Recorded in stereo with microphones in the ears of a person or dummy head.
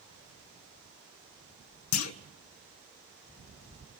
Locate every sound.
1.9 s a clunk: 85° left, 1.7 m